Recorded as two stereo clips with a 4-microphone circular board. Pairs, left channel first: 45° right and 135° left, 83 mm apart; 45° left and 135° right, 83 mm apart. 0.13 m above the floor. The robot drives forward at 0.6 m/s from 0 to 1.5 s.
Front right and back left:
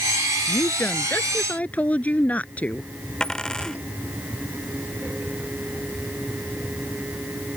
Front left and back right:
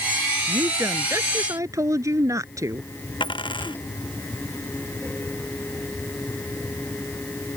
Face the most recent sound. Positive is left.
turn(degrees=40)